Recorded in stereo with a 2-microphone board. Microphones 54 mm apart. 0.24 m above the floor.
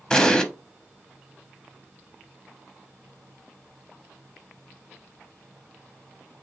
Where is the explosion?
15° left (ahead or behind), 0.5 m.